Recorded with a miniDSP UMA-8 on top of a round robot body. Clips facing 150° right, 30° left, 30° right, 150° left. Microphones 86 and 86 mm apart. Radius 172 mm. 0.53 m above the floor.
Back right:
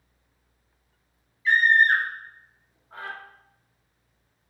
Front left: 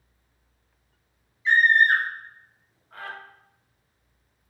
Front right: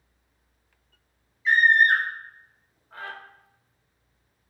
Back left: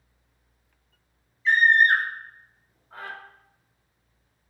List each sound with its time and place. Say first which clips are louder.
1.4 s a scream: even, even; 35° left, 1.3 m; by 3.1 s 160° right, 1.3 m